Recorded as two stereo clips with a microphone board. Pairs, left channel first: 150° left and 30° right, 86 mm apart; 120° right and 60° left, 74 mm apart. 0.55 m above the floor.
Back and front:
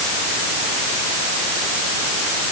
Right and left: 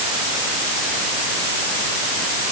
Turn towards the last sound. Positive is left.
No sound to turn to.